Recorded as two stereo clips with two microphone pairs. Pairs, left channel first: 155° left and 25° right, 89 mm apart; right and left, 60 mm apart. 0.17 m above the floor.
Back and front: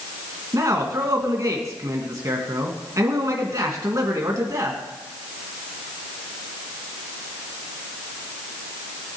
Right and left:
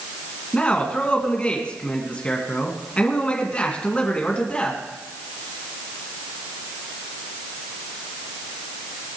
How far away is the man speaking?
About 2 m.